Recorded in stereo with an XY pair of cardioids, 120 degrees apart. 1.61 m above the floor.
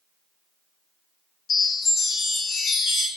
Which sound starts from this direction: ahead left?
A chime, at 1.5 s.